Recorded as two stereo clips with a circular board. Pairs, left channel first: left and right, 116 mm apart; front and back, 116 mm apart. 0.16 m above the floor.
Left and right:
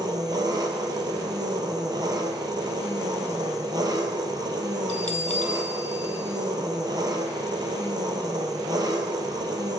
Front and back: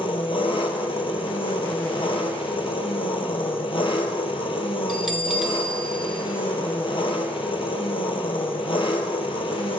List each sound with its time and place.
0.0 s an engine running: 40° right, 1.1 m
4.9 s a bell: 90° left, 0.9 m